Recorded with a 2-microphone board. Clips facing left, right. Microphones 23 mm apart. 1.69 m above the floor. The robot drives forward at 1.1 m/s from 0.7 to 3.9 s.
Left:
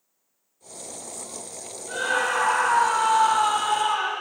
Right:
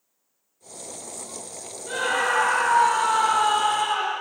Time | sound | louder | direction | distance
1.9 | a scream | right 1 dB | 50° right (ahead or behind) | 6 m